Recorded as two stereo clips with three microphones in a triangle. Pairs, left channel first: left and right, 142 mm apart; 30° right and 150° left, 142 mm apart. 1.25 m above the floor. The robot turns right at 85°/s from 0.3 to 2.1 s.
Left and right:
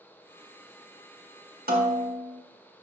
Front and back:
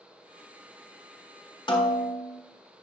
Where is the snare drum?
90° right, 1.3 m; by 2.4 s 55° right, 1.3 m.